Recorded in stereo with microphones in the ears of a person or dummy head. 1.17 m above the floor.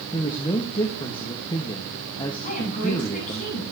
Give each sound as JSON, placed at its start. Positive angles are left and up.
{"t": 0.1, "sound": "a man speaking", "side_deg": 20, "distance_m": 1.3}
{"t": 2.4, "sound": "a woman speaking", "side_deg": 45, "distance_m": 7.0}